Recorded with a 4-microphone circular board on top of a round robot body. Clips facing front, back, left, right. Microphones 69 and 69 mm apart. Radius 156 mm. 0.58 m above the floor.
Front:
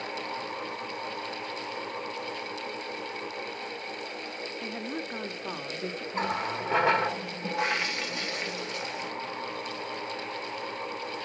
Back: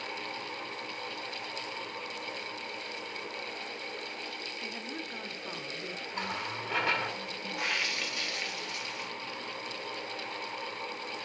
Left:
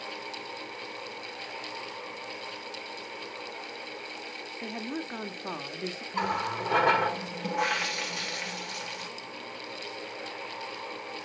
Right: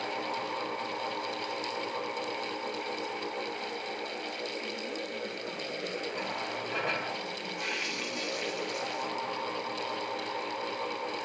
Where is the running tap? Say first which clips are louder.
Front 7 dB, left 5 dB; 60° left, 1.5 m.